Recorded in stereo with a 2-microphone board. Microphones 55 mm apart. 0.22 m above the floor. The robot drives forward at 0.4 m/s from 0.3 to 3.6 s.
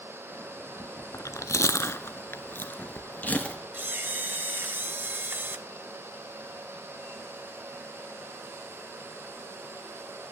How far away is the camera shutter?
About 0.7 m.